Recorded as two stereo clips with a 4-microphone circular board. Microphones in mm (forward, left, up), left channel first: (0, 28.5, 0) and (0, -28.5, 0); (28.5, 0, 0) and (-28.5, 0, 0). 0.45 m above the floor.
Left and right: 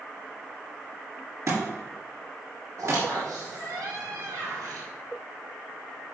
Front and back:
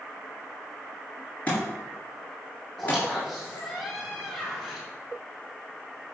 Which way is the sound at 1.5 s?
65° right.